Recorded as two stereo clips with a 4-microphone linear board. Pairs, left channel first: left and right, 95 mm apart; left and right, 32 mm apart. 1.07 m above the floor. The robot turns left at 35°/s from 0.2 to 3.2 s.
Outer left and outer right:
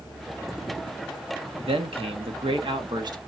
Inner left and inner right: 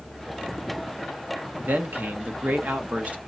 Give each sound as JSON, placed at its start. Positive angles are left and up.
{"t": 1.6, "sound": "a man speaking", "azimuth_deg": -80, "distance_m": 1.5}